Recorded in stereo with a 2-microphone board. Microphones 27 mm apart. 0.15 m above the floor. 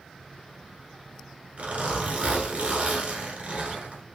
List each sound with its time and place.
1.6 s a zipper: 50° right (ahead or behind), 1.1 m